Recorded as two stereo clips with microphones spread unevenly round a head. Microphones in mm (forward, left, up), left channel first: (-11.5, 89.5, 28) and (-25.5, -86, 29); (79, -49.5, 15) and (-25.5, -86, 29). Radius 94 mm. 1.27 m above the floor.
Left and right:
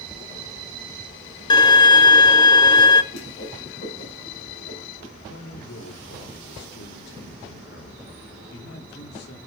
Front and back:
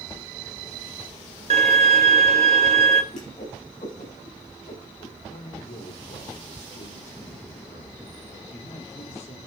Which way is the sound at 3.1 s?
55° left.